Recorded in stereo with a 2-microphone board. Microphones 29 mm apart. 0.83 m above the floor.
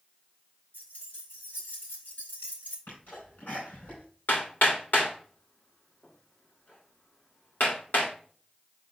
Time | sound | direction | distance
0.7 | keys jangling | 75° left (ahead or behind) | 3.5 m
2.9 | a sneeze | 85° left | 4 m
4.3 | hammering | 80° left | 3 m